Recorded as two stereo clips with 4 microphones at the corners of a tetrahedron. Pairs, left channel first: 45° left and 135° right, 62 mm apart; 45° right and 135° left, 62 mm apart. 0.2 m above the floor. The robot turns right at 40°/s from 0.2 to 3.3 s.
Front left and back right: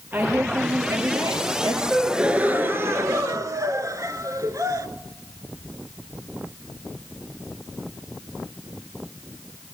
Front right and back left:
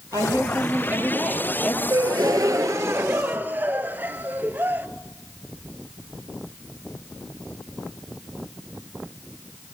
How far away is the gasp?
About 0.9 m.